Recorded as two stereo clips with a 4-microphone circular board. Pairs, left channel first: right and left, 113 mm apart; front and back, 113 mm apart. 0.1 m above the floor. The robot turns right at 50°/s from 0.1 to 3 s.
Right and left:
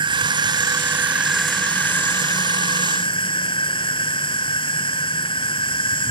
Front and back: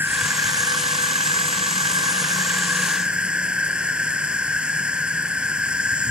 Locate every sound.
0.0 s an insect: 115° left; by 6.1 s 100° right